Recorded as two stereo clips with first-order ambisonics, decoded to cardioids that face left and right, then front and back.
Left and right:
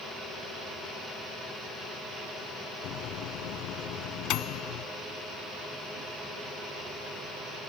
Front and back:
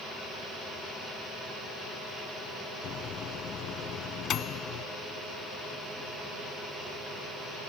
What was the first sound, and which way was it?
A microwave, 55° left.